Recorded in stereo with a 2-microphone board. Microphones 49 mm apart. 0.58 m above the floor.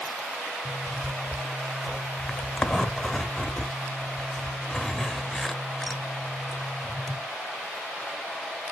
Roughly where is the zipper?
Centre.